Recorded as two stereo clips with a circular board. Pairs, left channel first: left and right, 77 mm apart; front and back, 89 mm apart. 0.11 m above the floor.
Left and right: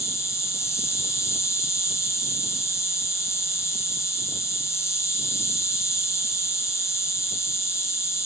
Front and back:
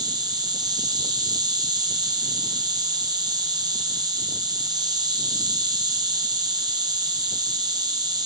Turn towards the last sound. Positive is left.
turn(degrees=140)